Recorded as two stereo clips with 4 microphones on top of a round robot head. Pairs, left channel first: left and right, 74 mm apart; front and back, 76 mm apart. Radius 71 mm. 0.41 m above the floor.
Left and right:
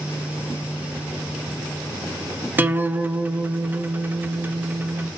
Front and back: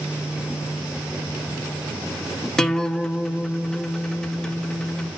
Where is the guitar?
70° right, 0.7 m.